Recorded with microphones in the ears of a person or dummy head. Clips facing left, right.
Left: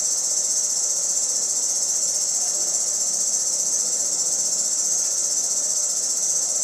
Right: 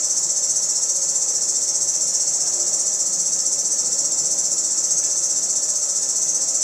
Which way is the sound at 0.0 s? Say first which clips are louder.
Right 1 dB; 85° right.